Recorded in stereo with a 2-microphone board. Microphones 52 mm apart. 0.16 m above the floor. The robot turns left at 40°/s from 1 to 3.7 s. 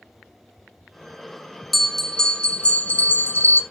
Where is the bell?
175° left, 1.3 m; by 3.6 s 100° left, 1.3 m.